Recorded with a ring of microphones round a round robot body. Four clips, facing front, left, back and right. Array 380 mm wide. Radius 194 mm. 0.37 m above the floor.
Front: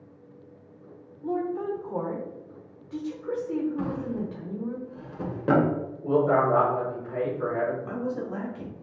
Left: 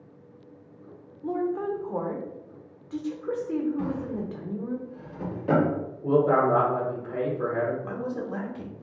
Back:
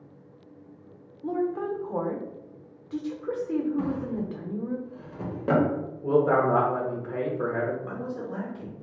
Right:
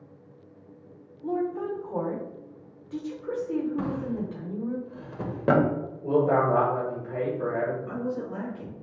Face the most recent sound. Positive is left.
turn(degrees=95)